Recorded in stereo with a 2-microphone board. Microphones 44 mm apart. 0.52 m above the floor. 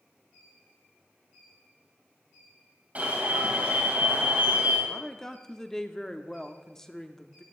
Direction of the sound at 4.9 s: 15° left (ahead or behind).